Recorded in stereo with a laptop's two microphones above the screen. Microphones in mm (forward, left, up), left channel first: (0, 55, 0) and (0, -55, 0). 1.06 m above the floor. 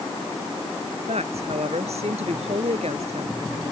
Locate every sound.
1.1 s a woman speaking: 75° right (ahead or behind)